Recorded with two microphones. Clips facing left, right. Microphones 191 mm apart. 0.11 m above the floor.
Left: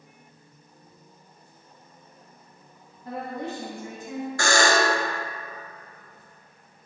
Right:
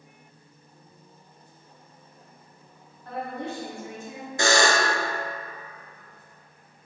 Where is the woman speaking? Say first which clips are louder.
Left 1 dB; 10° left (ahead or behind), 1.2 m.